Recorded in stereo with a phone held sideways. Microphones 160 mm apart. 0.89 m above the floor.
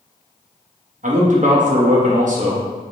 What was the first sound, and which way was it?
A man speaking, 55° right (ahead or behind).